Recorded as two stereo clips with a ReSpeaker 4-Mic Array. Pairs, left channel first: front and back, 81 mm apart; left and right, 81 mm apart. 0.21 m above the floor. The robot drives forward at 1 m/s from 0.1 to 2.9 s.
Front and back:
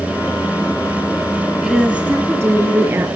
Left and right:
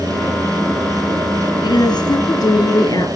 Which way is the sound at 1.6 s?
100° left.